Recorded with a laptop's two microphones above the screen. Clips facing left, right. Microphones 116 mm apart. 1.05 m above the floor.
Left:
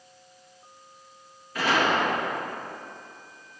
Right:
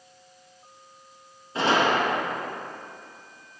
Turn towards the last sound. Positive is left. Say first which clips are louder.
# right 2 dB
turn(degrees=-25)  # may be behind; listen again after turning